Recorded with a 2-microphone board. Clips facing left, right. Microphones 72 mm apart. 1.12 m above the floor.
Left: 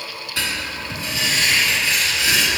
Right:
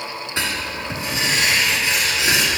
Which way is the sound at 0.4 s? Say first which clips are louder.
Right 1 dB; 25° right (ahead or behind).